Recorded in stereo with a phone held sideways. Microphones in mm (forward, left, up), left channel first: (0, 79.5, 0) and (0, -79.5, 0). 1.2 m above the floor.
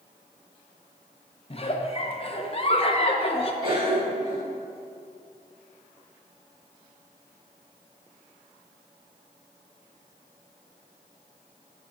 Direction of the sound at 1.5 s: 35° left (ahead or behind).